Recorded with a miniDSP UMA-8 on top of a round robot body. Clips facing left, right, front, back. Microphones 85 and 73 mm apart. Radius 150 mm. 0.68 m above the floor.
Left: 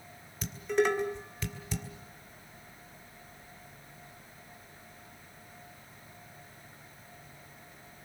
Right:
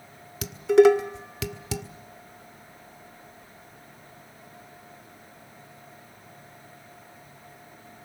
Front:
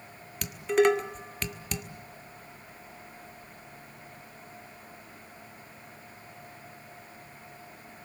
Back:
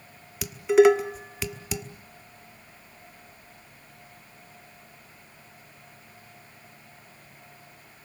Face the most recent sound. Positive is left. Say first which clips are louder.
# right 12 dB, back 6 dB
turn(degrees=-95)